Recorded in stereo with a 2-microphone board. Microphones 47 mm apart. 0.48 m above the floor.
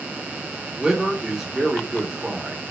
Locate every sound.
0.8 s a man speaking: 10° right (ahead or behind), 0.7 m